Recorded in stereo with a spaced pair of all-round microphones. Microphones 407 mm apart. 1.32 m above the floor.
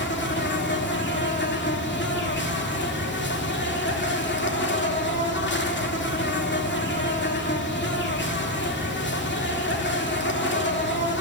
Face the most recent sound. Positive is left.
turn(degrees=25)  # may be behind; listen again after turning